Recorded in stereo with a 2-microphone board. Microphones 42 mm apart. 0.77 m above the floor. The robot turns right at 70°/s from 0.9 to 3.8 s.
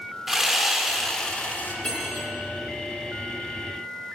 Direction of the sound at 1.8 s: 155° left.